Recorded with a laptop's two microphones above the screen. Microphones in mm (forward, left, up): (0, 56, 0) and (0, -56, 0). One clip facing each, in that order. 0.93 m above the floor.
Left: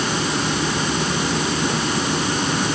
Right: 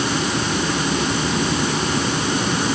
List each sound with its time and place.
Only background noise.